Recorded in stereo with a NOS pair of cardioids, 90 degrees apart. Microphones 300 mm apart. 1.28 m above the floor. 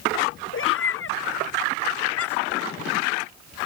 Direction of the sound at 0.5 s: 45° left.